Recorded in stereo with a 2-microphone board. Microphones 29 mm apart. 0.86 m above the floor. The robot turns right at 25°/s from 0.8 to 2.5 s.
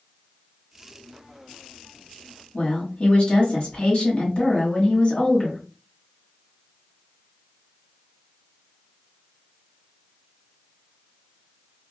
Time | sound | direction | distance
2.5 | a woman speaking | 40° left (ahead or behind) | 1.4 m